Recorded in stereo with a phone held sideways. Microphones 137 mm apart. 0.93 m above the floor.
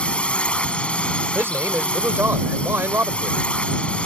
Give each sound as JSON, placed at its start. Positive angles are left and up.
{"t": 0.0, "sound": "a drone", "side_deg": 10}
{"t": 1.4, "sound": "a man speaking", "side_deg": -15}